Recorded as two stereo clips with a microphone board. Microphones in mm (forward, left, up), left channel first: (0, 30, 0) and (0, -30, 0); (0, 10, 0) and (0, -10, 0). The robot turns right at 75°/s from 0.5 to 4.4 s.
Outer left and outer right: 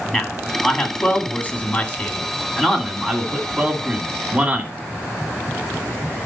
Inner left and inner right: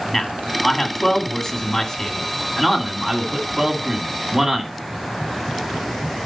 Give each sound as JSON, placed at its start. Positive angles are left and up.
{"t": 0.1, "sound": "a man speaking", "side_deg": -5, "distance_m": 1.8}